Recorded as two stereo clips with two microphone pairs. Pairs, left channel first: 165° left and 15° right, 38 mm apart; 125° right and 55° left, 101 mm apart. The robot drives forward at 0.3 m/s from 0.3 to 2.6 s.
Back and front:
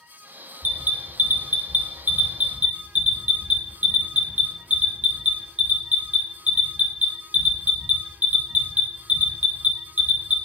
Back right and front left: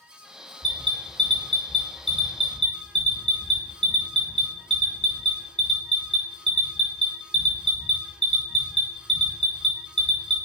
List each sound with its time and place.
0.6 s an alarm: 25° left, 2.0 m; by 10.4 s 35° left, 1.5 m